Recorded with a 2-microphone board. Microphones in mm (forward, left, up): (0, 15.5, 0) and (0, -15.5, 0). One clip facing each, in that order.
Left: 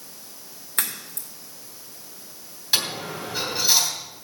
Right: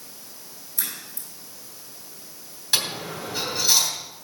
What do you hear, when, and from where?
0.8 s a crack: 65° left (ahead or behind), 3 m
2.7 s a dropped coin: 5° left (ahead or behind), 3 m